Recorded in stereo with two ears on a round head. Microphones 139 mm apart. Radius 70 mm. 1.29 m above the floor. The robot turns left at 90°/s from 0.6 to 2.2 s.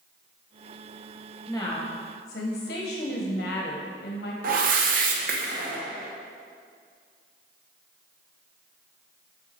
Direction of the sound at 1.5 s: 175° left.